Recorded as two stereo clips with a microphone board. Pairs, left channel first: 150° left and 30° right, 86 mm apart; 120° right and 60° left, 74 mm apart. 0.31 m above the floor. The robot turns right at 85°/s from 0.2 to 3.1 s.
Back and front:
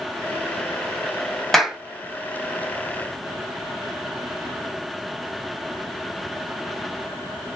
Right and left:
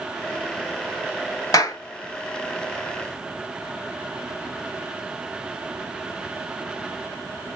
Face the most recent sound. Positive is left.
turn(degrees=5)